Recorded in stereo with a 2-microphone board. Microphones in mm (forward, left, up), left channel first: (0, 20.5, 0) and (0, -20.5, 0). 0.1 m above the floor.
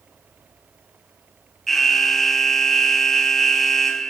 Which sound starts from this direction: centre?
An alarm, at 1.7 s.